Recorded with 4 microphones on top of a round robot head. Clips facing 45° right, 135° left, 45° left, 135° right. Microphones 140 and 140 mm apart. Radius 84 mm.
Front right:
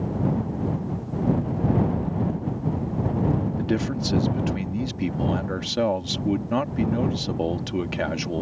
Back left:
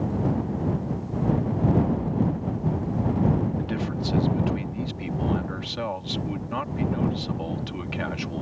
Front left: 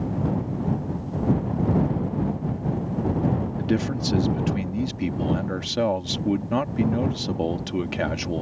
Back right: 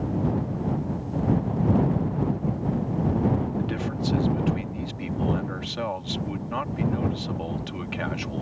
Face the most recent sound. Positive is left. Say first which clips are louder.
# front right 4 dB, front left 4 dB
turn(degrees=0)